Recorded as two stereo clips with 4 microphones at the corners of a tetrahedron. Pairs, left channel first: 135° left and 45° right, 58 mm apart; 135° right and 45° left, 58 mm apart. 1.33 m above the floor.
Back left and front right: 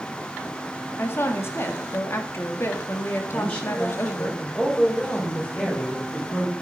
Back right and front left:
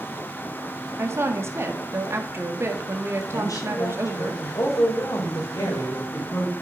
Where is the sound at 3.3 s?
160° right, 5 m.